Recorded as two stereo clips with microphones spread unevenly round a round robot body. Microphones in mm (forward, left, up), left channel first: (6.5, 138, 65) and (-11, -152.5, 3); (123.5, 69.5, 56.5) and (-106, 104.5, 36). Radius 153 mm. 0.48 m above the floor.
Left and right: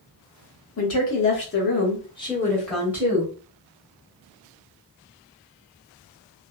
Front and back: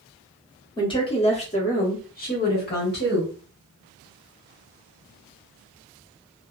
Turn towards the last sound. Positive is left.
turn(degrees=-40)